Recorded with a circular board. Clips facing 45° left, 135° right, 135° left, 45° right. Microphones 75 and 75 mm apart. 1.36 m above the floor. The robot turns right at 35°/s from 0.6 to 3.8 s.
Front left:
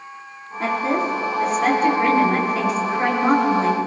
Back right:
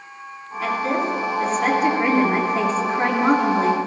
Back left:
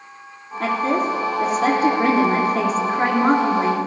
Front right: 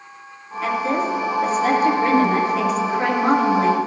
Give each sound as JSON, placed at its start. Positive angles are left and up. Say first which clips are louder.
{"t": 0.6, "sound": "a woman speaking", "louder": "front left 1 dB, back left 1 dB", "azimuth_deg": 95, "distance_m": 4.0}